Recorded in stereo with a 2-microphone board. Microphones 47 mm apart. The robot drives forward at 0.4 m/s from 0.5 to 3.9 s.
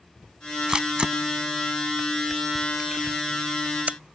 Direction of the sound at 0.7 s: 20° right (ahead or behind).